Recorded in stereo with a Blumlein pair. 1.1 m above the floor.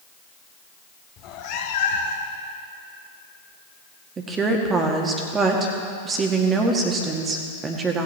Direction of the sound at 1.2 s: 35° left.